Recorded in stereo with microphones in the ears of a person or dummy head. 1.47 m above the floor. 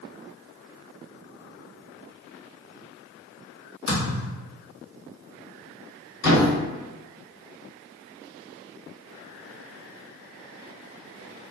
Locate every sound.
3.9 s a thud: 60° left (ahead or behind), 1.4 m
6.2 s a thud: 55° left (ahead or behind), 1.8 m